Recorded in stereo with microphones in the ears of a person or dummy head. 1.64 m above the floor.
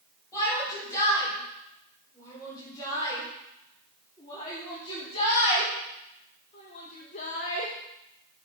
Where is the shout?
20° left (ahead or behind), 5.5 m; by 7.7 s 45° left (ahead or behind), 1.2 m.